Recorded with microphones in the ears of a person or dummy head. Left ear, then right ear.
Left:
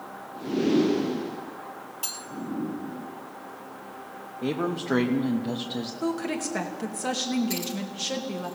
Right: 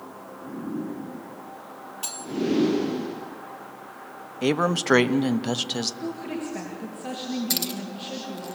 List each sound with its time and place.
2.0 s cutlery clinking: 5° right (ahead or behind), 1.7 m
4.4 s a man speaking: 70° right (ahead or behind), 0.9 m
6.0 s a woman speaking: 55° left (ahead or behind), 2 m
7.5 s keys jangling: 40° right (ahead or behind), 1.2 m